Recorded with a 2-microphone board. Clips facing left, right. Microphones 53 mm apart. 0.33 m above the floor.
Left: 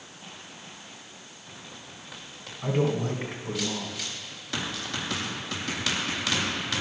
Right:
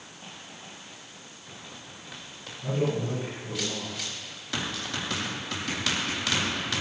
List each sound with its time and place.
2.6 s a man speaking: 60° left (ahead or behind), 2 m